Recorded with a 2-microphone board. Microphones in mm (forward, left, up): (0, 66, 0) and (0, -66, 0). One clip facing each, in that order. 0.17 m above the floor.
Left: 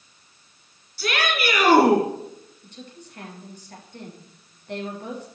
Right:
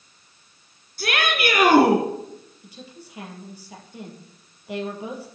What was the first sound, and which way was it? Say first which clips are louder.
A shout: right 1 dB; 50° right (ahead or behind).